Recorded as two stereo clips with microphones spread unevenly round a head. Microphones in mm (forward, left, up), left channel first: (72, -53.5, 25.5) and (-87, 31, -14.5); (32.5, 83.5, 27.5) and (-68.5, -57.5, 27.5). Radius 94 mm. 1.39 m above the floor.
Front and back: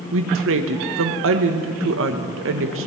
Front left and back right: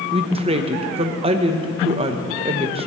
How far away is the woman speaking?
About 1.0 m.